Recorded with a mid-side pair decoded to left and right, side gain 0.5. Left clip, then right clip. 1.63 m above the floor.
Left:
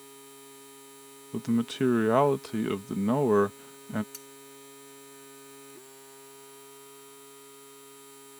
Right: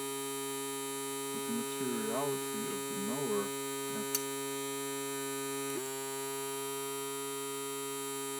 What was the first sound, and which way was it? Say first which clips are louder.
A machine running: right 11 dB; 60° right.